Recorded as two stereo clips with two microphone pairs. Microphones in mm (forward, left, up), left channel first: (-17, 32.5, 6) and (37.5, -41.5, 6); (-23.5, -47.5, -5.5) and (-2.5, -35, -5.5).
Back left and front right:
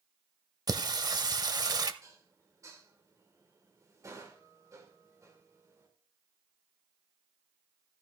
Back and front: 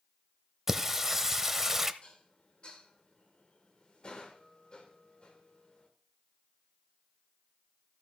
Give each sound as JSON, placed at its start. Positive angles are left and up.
{"t": 0.7, "sound": "singing", "azimuth_deg": -45, "distance_m": 0.6}
{"t": 2.0, "sound": "dishes clattering", "azimuth_deg": -105, "distance_m": 1.8}